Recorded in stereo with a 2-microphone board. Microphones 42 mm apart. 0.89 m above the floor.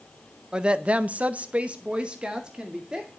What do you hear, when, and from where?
0.5 s a woman speaking: 20° right (ahead or behind), 0.8 m